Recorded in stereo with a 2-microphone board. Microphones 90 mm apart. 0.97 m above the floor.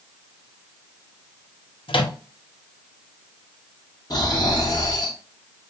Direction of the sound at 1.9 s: 80° left.